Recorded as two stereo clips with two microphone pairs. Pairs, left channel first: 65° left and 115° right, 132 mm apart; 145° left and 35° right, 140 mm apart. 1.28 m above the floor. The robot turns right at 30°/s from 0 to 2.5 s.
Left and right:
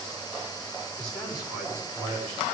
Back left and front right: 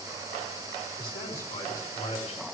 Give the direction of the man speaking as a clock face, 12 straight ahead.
7 o'clock.